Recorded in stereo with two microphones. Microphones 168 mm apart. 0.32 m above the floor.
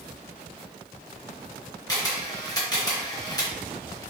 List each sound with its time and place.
1.9 s a camera shutter: 20° left (ahead or behind), 0.7 m